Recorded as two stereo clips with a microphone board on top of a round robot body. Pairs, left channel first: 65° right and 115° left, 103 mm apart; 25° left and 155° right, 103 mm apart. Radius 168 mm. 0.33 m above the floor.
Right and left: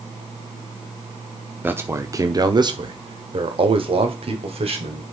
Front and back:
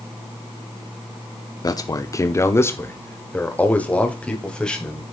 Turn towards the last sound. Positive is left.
turn(degrees=105)